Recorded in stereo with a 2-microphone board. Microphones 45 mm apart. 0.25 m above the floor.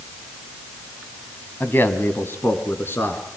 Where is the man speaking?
45° left (ahead or behind), 2 m; by 3.2 s 55° left (ahead or behind), 4 m.